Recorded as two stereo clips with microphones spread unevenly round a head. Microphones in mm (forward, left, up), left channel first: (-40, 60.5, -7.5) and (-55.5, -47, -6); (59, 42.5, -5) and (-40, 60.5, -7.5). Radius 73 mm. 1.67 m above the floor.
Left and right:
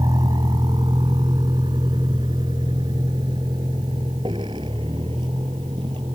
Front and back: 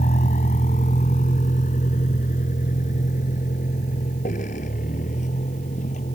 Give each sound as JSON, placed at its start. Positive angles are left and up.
{"t": 0.0, "sound": "a vehicle", "azimuth_deg": -30}